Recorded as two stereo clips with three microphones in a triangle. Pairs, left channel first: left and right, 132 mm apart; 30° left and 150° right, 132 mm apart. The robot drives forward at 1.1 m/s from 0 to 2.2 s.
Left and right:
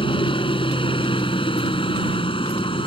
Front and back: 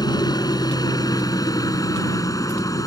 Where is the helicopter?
70° left; by 2.9 s 80° left.